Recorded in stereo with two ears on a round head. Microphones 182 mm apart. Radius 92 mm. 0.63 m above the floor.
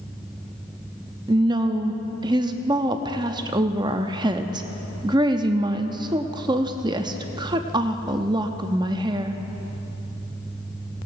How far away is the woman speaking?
About 0.6 m.